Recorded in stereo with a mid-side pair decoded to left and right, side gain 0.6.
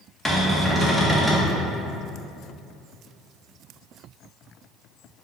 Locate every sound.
0.2 s a cupboard door: 10° left, 0.7 m